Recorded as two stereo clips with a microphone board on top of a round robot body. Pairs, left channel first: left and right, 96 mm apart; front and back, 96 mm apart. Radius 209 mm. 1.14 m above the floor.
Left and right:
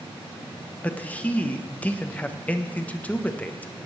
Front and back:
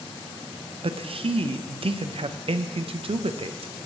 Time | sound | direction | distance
0.8 | a man speaking | 165° left | 0.8 m